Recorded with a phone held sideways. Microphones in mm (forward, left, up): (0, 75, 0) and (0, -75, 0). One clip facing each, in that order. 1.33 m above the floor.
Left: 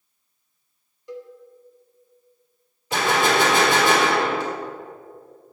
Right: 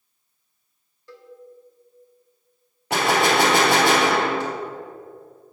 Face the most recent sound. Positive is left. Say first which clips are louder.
# right 1 dB
turn(degrees=-70)  # may be behind; listen again after turning